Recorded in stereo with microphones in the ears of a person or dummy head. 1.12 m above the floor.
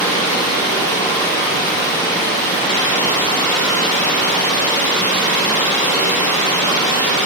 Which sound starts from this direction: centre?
Running water, at 0.0 s.